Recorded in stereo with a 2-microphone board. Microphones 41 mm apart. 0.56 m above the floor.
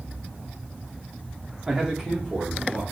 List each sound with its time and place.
1.7 s a man speaking: 15° right (ahead or behind), 0.7 m; by 2.8 s 5° right (ahead or behind), 1.7 m